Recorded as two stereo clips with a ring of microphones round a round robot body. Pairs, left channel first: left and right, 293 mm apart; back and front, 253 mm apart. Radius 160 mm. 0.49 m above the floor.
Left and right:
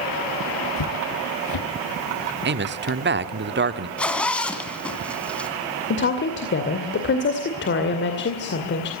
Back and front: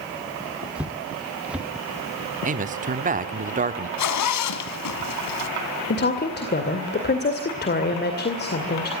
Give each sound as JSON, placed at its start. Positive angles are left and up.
{"t": 0.8, "sound": "footsteps", "azimuth_deg": 85, "distance_m": 1.1}
{"t": 2.5, "sound": "a man speaking", "azimuth_deg": -50, "distance_m": 1.1}
{"t": 4.0, "sound": "a zipper", "azimuth_deg": 175, "distance_m": 2.0}
{"t": 5.9, "sound": "a woman speaking", "azimuth_deg": 135, "distance_m": 2.5}